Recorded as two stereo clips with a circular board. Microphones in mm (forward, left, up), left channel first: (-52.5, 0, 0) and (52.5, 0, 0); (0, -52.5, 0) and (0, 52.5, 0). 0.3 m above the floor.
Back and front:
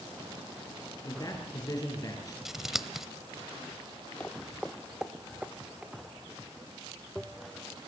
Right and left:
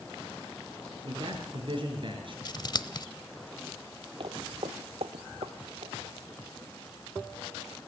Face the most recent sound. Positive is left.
turn(degrees=75)